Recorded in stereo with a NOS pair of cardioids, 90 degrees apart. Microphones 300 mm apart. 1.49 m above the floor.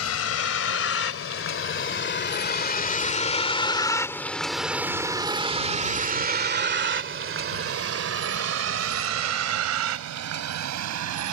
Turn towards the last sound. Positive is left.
turn(degrees=-70)